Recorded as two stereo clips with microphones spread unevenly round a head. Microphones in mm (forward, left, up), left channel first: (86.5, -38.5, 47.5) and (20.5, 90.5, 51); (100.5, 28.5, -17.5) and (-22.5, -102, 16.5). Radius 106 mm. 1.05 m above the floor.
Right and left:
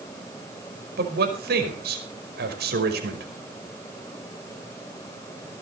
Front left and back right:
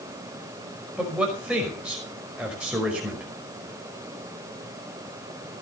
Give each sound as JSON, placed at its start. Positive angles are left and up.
{"t": 1.0, "sound": "a man speaking", "azimuth_deg": 140, "distance_m": 5.5}